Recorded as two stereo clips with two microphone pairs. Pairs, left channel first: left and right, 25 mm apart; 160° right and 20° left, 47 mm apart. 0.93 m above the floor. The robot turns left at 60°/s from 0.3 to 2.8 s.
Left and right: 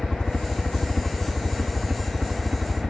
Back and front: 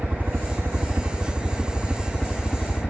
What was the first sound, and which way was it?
A helicopter, 55° left.